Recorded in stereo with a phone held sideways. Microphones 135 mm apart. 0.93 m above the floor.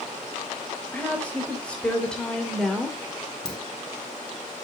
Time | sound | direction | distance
0.9 | a woman speaking | 10° left (ahead or behind) | 3.5 m
3.5 | a dropped coin | 5° left (ahead or behind) | 1.8 m